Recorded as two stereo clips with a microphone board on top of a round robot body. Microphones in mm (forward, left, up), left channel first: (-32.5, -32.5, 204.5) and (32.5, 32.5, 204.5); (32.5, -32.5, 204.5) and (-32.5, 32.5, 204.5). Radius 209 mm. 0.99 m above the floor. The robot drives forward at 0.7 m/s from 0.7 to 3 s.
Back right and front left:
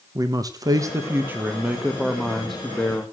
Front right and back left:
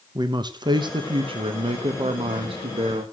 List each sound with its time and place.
0.1 s a man speaking: 95° left, 1.3 m; by 3.0 s 145° left, 2 m